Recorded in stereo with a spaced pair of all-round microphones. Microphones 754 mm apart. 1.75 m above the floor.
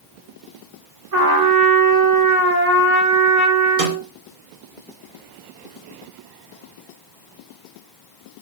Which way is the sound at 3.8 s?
85° right.